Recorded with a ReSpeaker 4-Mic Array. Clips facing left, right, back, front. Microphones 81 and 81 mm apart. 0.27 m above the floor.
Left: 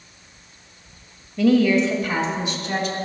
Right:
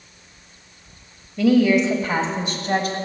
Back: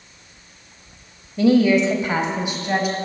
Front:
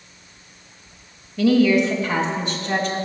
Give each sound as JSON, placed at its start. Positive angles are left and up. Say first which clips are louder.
{"t": 1.4, "sound": "a woman speaking", "louder": "right 1 dB, back 1 dB", "azimuth_deg": 180, "distance_m": 1.0}